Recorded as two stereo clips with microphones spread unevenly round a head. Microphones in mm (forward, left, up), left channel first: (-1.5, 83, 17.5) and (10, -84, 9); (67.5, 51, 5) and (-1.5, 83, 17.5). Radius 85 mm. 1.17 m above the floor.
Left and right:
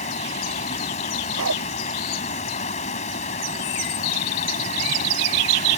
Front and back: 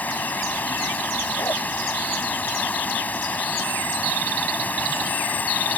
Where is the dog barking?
95° right.